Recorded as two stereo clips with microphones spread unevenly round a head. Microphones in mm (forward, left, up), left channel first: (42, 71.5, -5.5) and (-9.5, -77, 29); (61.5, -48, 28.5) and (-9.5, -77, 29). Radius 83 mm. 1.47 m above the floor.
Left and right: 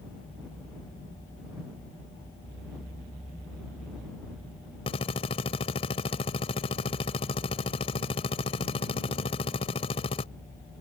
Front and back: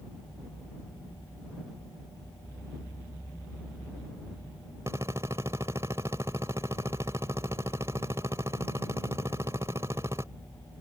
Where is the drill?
130° left.